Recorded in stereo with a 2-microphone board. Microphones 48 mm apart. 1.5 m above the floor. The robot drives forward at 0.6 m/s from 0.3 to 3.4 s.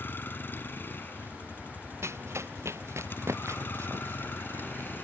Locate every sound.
0.0 s a vehicle: 45° left (ahead or behind); by 5.0 s 40° left (ahead or behind)
2.0 s running footsteps: 70° right (ahead or behind)